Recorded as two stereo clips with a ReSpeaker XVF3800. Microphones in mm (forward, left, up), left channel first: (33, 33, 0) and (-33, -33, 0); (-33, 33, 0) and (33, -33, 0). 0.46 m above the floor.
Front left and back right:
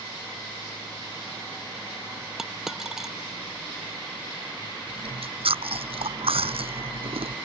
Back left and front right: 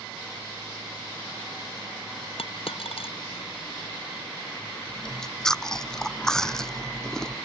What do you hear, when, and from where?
2.4 s a dropped coin: 140° left
4.9 s chewing: 140° right